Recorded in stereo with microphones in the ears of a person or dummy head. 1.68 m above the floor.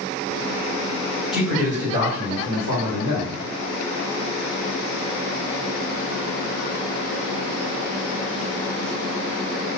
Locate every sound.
1.3 s a man speaking: centre (ahead or behind), 1.1 m; by 3.4 s 65° right (ahead or behind), 1.4 m